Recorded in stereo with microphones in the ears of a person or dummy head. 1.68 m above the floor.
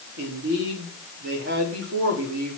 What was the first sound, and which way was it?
A man speaking, 65° right (ahead or behind).